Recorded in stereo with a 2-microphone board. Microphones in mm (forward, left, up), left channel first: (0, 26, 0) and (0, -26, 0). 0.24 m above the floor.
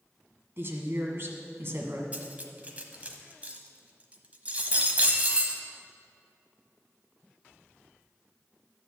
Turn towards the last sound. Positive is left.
turn(degrees=-30)  # may be behind; listen again after turning